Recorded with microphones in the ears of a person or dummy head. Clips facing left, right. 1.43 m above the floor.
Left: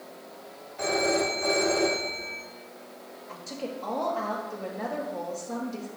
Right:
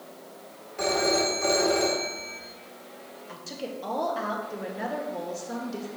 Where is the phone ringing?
75° right (ahead or behind), 1.9 m.